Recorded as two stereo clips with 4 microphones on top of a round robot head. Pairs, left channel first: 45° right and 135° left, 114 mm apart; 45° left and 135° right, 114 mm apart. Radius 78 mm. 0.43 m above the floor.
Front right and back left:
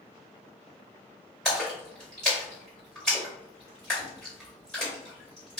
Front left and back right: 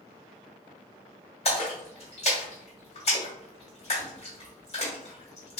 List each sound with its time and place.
1.4 s a splash: 35° left, 1.9 m